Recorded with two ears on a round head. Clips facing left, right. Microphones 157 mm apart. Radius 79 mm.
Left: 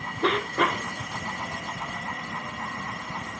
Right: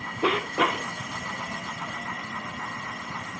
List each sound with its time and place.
0.2 s a cough: 5° right (ahead or behind), 1.0 m